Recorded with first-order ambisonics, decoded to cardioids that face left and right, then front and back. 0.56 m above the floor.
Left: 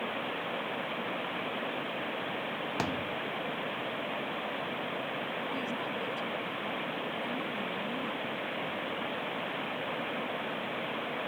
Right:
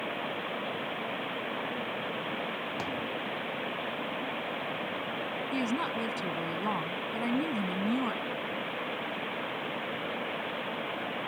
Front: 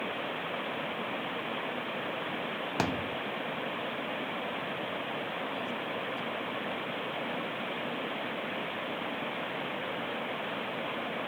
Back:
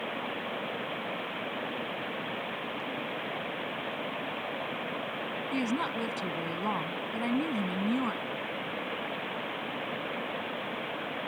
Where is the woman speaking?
145° right.